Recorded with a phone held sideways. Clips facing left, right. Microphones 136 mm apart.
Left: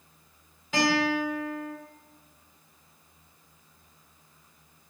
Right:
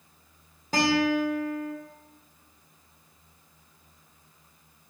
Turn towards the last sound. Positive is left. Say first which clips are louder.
# right 2 dB
turn(degrees=-40)  # may be behind; listen again after turning